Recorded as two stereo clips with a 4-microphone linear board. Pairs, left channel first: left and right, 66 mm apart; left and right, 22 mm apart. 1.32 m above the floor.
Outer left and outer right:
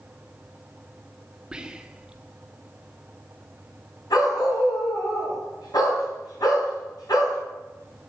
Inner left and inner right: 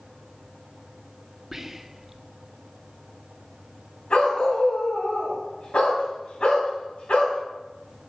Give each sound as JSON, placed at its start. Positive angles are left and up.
{"t": 1.5, "sound": "whispering", "side_deg": -15, "distance_m": 0.7}
{"t": 4.1, "sound": "a dog barking", "side_deg": 75, "distance_m": 3.5}